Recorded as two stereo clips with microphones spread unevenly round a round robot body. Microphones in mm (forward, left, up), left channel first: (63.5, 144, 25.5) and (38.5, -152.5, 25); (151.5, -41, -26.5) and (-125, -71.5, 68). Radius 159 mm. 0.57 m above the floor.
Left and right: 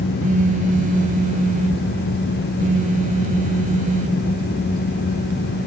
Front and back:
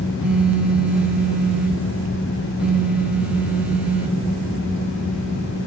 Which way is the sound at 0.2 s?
55° right.